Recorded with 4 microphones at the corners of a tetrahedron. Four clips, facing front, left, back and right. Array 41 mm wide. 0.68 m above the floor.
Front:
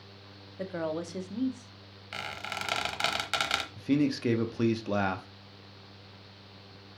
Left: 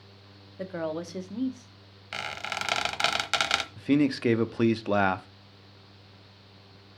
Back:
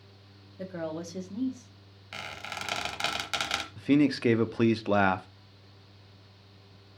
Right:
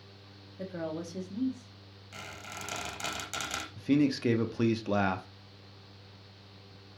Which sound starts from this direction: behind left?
A man speaking, at 3.8 s.